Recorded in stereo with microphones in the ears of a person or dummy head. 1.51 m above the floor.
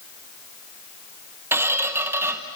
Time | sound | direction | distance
1.5 | a squeak | 15° right (ahead or behind) | 1.0 m